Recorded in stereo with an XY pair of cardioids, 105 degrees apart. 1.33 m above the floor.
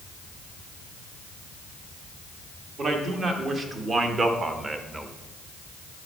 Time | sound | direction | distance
2.8 | a man speaking | 50° right | 2.5 m